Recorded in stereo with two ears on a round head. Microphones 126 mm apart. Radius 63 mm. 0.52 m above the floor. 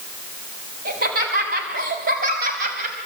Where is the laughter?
70° right (ahead or behind), 5 m; by 3.0 s 60° right (ahead or behind), 4 m.